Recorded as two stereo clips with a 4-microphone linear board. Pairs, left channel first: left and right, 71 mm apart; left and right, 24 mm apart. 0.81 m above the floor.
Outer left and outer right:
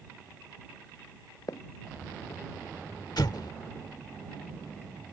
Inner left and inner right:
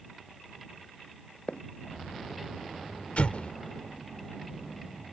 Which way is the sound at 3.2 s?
70° left (ahead or behind).